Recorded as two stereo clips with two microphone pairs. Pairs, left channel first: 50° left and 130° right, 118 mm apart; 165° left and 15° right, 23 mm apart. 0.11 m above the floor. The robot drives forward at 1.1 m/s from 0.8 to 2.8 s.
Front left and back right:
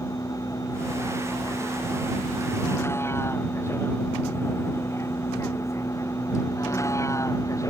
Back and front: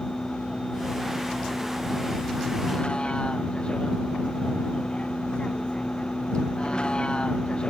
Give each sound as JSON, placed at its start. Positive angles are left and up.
{"t": 0.0, "sound": "a vehicle", "azimuth_deg": 115}